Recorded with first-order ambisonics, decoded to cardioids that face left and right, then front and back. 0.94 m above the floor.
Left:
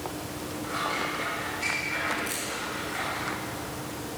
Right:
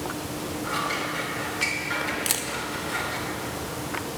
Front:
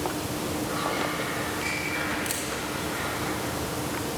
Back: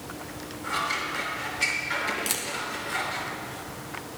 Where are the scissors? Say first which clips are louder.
Right 1 dB, back 3 dB; 135° right, 3 m.